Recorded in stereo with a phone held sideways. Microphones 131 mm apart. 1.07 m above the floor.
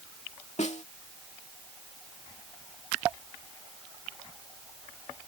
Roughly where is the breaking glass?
I don't hear breaking glass.